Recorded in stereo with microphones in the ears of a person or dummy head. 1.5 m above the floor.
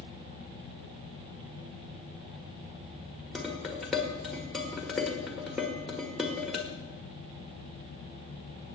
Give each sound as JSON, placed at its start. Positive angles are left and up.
{"t": 3.4, "sound": "dishes clattering", "side_deg": 0, "distance_m": 1.7}